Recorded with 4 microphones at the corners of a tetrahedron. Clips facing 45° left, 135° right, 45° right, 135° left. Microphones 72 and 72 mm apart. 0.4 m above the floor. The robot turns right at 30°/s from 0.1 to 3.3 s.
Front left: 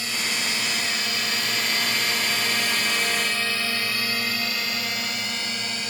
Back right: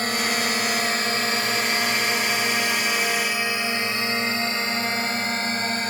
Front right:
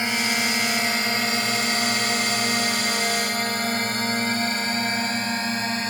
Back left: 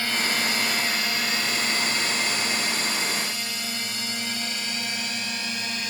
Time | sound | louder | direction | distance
0.0 | a drone | back right 5 dB, front right 2 dB | 110° right | ?